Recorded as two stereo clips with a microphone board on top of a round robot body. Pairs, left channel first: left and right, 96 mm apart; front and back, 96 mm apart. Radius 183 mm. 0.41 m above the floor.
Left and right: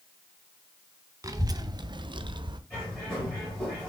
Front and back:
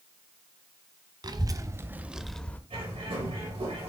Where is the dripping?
I don't hear dripping.